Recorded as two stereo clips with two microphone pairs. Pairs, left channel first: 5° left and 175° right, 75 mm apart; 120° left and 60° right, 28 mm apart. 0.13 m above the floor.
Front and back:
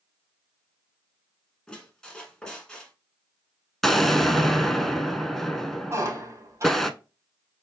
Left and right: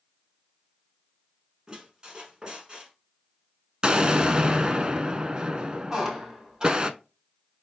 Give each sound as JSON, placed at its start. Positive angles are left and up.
{"t": 1.7, "sound": "a squeak", "azimuth_deg": -65, "distance_m": 1.2}
{"t": 3.8, "sound": "an explosion", "azimuth_deg": -80, "distance_m": 0.5}
{"t": 5.9, "sound": "a squeak", "azimuth_deg": -130, "distance_m": 1.5}